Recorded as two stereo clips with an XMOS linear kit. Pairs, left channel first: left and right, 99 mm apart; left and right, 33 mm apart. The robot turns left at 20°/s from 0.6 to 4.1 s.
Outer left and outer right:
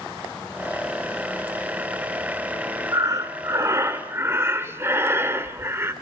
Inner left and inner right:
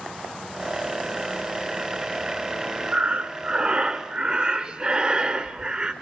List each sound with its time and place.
2.9 s breathing: 40° right (ahead or behind), 1.7 m; by 5.9 s 25° right (ahead or behind), 1.7 m